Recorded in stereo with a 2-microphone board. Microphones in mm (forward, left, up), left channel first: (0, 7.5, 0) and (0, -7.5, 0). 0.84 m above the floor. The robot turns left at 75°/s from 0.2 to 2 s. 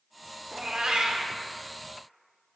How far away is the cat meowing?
About 0.7 m.